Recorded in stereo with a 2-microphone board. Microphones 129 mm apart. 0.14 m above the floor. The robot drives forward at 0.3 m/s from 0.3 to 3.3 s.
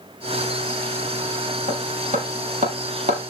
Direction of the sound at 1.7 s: 75° right (ahead or behind).